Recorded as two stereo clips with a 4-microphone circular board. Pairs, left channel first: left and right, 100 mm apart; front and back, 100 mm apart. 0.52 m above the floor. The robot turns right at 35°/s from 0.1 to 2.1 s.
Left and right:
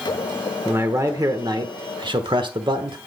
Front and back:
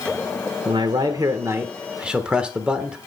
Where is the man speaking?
150° right, 1.2 m; by 3.0 s 100° right, 1.2 m.